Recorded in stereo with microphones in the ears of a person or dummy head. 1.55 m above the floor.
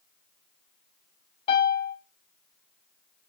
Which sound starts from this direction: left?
A piano, at 1.5 s.